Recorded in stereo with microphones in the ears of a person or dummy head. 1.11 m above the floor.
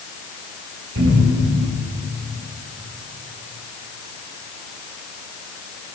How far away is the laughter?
I don't hear laughter.